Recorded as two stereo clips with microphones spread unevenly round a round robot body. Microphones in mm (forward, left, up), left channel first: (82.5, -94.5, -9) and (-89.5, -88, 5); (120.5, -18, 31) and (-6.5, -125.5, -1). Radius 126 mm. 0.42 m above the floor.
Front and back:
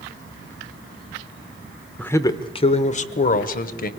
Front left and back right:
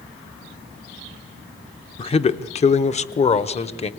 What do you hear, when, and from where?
2.0 s a man speaking: 50° left, 0.8 m; by 3.9 s 15° right, 1.6 m